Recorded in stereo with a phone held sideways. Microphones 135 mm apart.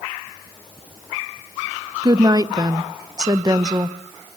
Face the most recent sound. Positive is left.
turn(degrees=-30)  # may be behind; listen again after turning